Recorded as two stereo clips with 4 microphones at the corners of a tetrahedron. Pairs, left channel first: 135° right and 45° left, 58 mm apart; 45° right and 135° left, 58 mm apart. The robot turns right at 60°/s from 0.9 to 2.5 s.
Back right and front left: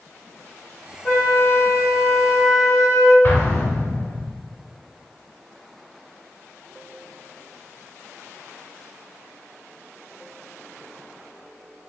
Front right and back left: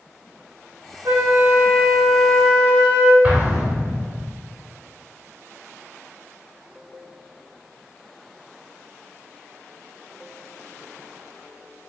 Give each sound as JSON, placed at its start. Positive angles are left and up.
{"t": 1.1, "sound": "a flute", "azimuth_deg": 165, "distance_m": 0.6}
{"t": 3.2, "sound": "an explosion", "azimuth_deg": -160, "distance_m": 1.1}